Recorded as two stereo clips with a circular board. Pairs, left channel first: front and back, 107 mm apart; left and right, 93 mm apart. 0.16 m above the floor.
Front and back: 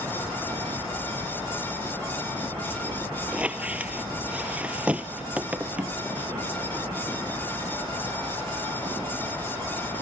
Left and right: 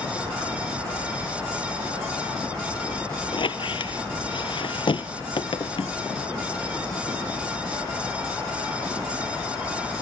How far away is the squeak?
About 0.5 m.